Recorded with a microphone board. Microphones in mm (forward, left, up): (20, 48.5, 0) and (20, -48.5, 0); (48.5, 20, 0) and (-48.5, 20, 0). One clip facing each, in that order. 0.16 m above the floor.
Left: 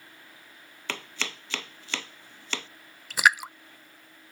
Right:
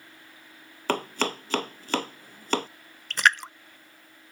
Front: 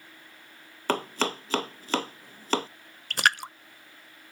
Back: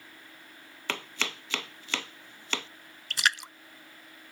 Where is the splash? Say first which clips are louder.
Even, front 4 dB; 10° left.